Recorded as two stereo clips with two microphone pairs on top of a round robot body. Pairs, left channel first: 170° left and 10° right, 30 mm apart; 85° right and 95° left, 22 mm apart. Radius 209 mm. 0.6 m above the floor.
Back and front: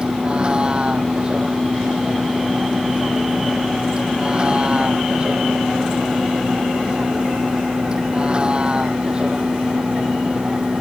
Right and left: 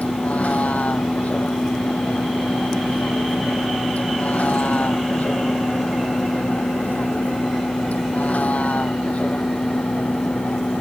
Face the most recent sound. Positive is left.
turn(degrees=-70)